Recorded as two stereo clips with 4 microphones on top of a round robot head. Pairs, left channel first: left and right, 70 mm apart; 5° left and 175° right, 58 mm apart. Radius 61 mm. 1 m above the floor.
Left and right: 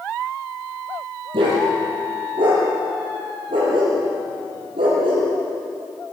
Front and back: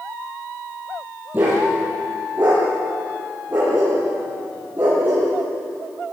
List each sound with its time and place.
1.3 s a dog barking: 105° right, 9.5 m